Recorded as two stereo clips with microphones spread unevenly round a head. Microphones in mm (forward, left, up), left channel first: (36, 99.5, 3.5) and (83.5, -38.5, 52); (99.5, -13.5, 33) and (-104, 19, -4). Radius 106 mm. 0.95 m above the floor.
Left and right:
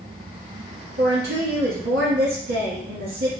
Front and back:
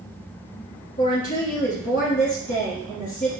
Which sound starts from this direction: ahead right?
A woman speaking, at 1.0 s.